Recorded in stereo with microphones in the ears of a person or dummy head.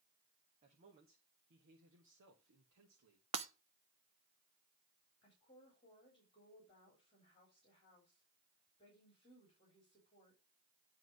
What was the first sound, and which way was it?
A man speaking, 30° right (ahead or behind).